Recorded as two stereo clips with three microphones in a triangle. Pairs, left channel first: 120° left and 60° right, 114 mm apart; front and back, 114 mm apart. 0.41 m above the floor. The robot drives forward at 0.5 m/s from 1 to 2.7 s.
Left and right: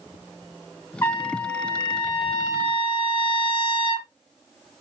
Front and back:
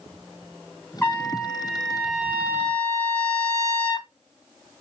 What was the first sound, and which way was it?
A trumpet, 60° left.